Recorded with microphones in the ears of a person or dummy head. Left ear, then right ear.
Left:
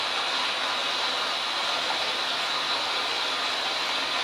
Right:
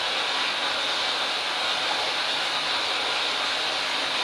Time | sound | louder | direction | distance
0.0 | running water | right 1 dB | 15° left (ahead or behind) | 1.0 m